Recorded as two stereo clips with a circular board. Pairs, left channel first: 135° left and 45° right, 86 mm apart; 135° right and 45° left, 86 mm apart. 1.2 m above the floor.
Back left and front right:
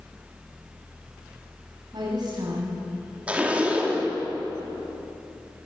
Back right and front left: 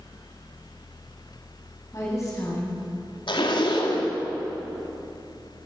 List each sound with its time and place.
1.9 s a woman speaking: 80° right, 7.5 m
3.3 s a zipper: 120° right, 3.5 m